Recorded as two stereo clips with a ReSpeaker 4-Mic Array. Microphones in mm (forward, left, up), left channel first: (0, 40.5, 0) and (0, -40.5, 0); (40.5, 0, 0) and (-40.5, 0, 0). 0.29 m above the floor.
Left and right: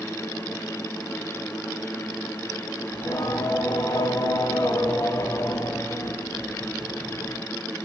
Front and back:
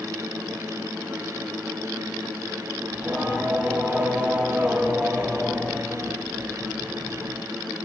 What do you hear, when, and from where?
2.9 s singing: 105° left, 1.3 m